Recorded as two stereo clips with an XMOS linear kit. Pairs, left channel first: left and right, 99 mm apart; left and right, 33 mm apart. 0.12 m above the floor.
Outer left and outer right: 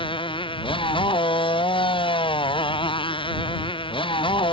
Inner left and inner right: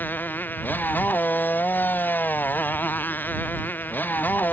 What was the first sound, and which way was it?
A motorcycle, 60° left (ahead or behind).